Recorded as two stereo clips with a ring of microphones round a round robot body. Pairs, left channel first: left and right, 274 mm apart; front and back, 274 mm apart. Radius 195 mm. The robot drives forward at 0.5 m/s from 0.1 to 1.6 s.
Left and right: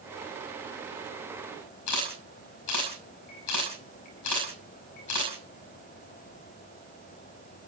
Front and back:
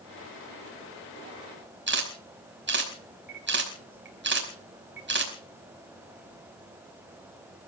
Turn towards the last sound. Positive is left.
turn(degrees=135)